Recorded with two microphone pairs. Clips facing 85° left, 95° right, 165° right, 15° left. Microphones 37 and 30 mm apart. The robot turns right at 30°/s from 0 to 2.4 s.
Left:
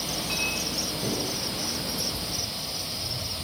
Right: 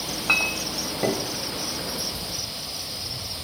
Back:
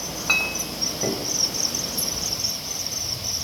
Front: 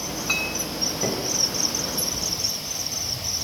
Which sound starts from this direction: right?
A clink, at 0.3 s.